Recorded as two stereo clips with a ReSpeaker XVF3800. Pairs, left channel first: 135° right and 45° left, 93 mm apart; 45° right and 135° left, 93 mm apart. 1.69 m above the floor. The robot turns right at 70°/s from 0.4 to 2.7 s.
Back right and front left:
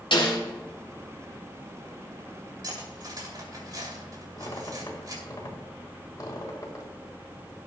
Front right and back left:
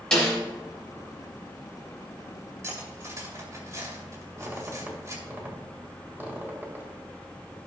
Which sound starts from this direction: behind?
A squeak, at 4.4 s.